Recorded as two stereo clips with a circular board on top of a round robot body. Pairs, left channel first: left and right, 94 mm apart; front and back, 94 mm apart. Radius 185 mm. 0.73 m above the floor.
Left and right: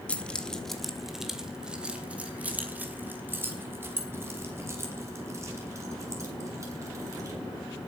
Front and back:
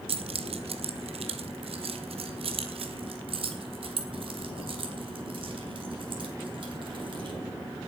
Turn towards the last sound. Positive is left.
turn(degrees=-145)